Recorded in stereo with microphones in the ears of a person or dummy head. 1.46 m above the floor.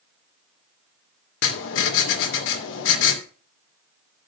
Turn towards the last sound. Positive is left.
turn(degrees=70)  # may be behind; listen again after turning